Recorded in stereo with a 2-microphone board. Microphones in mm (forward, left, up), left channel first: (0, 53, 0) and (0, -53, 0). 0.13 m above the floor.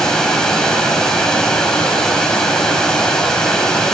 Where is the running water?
5° left (ahead or behind), 6 m.